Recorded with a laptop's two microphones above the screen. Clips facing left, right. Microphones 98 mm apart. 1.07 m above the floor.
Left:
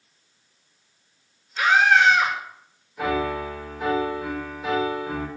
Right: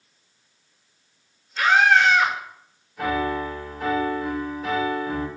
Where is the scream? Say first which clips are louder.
Even; 5° left (ahead or behind), 4 m.